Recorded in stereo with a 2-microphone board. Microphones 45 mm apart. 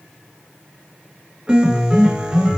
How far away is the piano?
About 1.8 m.